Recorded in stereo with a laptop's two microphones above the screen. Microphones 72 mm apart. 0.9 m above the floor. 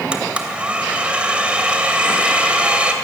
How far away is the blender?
About 2.5 m.